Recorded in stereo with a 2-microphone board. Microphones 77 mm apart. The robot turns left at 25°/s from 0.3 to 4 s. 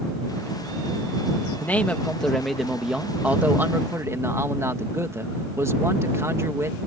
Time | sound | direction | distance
1.6 | a man speaking | 25° left | ?